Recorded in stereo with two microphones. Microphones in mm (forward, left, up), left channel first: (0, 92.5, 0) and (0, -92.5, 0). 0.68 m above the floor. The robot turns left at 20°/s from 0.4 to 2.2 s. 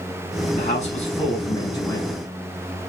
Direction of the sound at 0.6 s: 45° left.